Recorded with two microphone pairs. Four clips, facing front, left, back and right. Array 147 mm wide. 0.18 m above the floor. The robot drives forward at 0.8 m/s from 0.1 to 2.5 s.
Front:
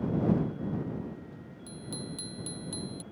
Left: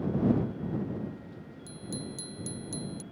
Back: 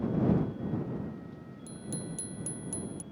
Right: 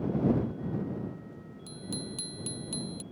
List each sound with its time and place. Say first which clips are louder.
1.7 s a bicycle bell: even, back 1 dB; 50° right; by 3.0 s 60° right